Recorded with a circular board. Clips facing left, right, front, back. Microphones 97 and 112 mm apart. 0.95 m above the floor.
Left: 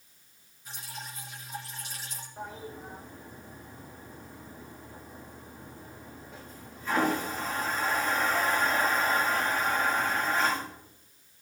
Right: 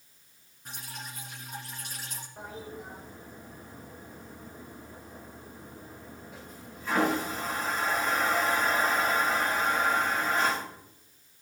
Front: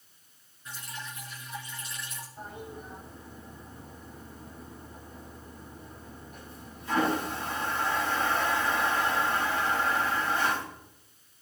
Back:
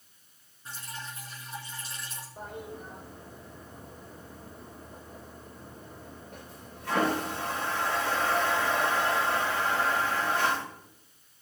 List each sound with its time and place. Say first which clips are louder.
0.7 s dripping: even, even; 120° right, 4.5 m
2.4 s a toilet flushing: left 1 dB, back 2 dB; 170° right, 5.5 m